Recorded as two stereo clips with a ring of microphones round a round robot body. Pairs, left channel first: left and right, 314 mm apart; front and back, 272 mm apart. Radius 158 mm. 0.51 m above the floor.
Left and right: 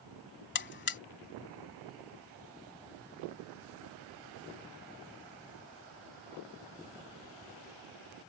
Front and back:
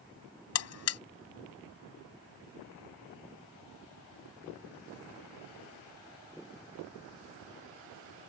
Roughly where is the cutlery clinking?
No cutlery clinking in this recording.